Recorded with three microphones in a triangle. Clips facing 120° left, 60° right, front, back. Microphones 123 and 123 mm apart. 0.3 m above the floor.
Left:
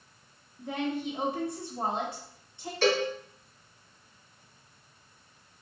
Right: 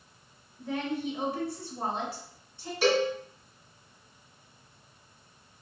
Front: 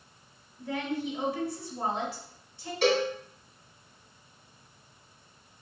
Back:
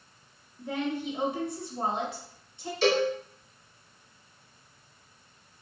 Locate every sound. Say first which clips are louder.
0.6 s a woman speaking: even, back 1 dB; 150° left, 0.9 m
2.8 s a cowbell: right 1 dB, back 1 dB; 15° left, 2 m